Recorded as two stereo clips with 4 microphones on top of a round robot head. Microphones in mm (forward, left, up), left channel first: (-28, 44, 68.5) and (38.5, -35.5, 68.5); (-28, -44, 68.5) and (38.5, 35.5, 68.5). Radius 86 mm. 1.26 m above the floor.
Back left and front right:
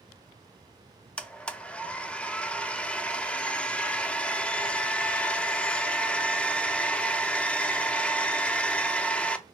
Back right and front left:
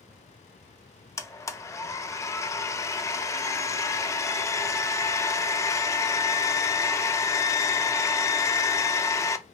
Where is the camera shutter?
I don't hear a camera shutter.